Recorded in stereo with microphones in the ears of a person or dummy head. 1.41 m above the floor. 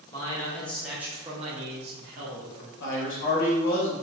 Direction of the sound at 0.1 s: 20° left (ahead or behind).